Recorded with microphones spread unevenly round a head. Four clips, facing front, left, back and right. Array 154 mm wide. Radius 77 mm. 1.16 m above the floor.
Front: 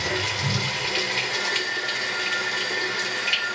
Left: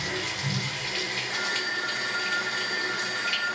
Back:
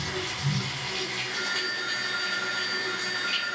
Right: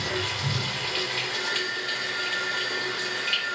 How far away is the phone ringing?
About 5.5 m.